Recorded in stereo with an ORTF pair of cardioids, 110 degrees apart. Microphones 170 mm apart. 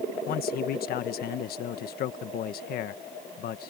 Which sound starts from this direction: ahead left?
A man speaking, at 0.3 s.